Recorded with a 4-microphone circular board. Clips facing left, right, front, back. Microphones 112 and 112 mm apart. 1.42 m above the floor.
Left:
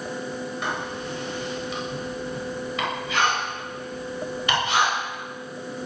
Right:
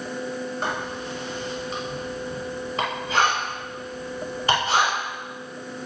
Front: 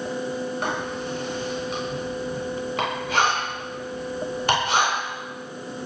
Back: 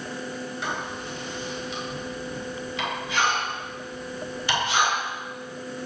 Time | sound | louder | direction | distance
0.6 | writing | right 1 dB, front 4 dB | 35° right | 7.5 m